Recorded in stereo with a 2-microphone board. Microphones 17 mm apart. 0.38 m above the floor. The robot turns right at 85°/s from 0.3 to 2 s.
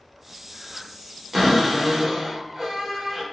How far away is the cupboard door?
About 1.3 m.